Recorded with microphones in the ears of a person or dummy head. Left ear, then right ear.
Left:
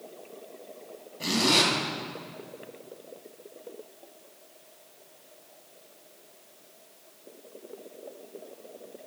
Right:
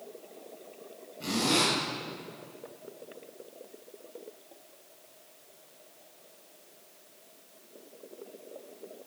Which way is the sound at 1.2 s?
40° left (ahead or behind).